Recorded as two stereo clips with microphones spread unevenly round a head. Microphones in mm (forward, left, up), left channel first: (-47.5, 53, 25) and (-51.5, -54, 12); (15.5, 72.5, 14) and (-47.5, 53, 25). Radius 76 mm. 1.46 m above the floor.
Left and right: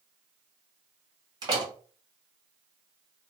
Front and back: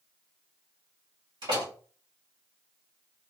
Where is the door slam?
145° right, 1.8 m.